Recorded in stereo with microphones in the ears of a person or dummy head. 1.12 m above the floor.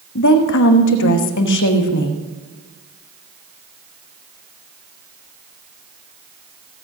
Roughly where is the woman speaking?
Left.